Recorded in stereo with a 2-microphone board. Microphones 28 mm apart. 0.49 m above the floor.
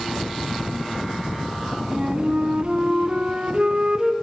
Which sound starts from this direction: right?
A flute, at 1.9 s.